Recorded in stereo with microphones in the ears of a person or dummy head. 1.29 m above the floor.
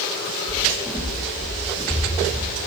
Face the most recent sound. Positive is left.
turn(degrees=0)  # may be behind; listen again after turning